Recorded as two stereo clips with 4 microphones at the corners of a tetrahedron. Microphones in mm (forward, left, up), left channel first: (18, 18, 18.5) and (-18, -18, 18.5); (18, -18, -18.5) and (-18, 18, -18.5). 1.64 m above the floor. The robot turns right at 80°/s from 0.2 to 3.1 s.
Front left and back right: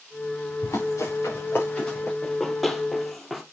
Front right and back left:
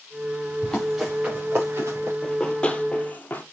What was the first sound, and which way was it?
Running footsteps, 25° left.